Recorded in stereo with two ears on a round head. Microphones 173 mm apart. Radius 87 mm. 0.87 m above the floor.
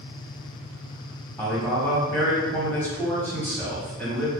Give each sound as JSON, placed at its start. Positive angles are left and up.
{"t": 1.4, "sound": "a man speaking", "side_deg": 10, "distance_m": 0.9}